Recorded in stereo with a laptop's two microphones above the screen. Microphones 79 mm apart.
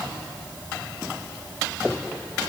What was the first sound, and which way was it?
Only background noise.